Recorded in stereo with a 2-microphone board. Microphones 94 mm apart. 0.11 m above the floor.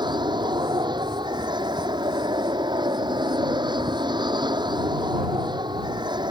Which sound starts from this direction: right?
An aircraft, at 0.0 s.